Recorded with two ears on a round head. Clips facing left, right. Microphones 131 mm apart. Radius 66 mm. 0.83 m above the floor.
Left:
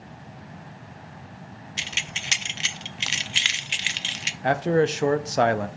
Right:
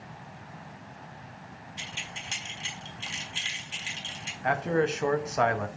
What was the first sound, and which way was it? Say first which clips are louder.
Keys jangling: left 5 dB; 80° left.